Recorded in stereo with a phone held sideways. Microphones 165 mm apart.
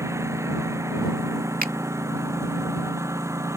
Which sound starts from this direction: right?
A finger snap, at 1.6 s.